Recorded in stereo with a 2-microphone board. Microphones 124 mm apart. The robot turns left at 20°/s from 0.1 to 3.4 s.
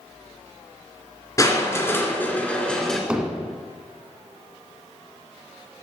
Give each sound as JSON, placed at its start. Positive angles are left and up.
{"t": 1.4, "sound": "crushing", "azimuth_deg": 35, "distance_m": 2.0}
{"t": 3.1, "sound": "hammering", "side_deg": -10, "distance_m": 1.3}